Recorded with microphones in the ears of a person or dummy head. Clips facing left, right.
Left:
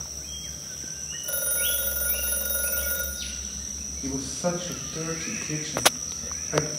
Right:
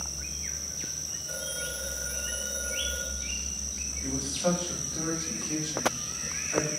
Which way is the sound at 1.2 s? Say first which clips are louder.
Left 3 dB; 65° left (ahead or behind).